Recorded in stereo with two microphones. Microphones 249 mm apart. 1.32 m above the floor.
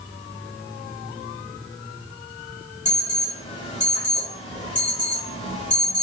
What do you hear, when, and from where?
2.9 s an alarm: 30° left (ahead or behind), 3 m